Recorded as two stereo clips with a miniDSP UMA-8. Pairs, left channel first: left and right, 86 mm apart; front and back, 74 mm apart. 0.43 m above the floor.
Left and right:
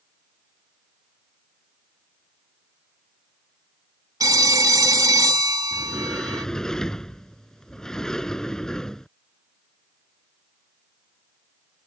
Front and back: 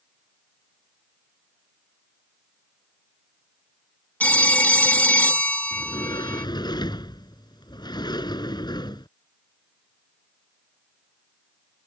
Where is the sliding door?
5° left.